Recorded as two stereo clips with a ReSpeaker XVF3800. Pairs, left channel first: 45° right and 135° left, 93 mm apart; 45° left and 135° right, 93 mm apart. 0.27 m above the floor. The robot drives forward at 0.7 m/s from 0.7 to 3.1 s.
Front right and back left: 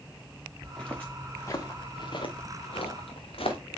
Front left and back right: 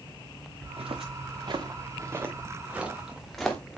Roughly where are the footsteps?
Behind right.